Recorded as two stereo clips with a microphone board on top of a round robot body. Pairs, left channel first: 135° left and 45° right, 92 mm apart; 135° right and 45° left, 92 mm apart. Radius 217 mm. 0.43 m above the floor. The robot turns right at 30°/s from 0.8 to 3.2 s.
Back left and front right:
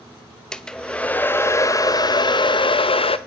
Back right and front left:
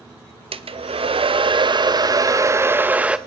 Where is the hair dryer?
50° left, 0.9 m; by 3.2 s 125° left, 0.9 m.